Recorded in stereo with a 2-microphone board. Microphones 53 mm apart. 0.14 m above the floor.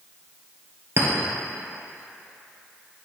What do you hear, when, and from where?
1.0 s a clink: 55° right (ahead or behind), 1.8 m